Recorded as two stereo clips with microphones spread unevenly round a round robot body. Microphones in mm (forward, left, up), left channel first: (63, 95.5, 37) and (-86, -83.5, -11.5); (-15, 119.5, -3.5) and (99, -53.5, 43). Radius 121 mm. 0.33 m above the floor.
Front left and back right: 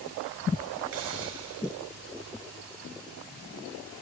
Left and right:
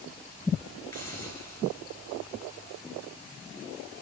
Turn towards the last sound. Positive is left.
turn(degrees=-160)